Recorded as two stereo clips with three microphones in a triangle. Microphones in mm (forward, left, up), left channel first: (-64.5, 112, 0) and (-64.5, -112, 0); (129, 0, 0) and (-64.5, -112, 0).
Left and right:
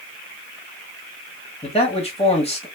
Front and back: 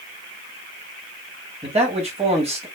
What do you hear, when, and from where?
1.6 s a man speaking: 150° left, 1.2 m